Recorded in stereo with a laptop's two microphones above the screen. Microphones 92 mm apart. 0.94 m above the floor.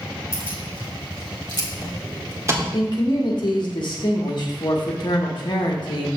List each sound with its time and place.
0.3 s keys jangling: 80° right, 2 m; by 2.6 s 30° right (ahead or behind), 1.7 m
2.7 s a man speaking: 55° left (ahead or behind), 1.1 m